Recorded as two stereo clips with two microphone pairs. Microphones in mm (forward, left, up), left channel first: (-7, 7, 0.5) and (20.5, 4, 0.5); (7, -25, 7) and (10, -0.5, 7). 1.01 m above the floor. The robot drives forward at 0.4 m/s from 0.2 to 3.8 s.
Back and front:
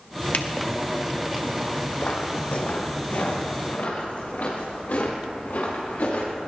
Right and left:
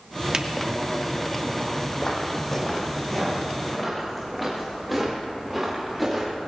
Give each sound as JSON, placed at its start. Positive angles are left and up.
{"t": 0.3, "sound": "a finger snap", "azimuth_deg": 135, "distance_m": 1.2}
{"t": 2.0, "sound": "footsteps", "azimuth_deg": -155, "distance_m": 2.5}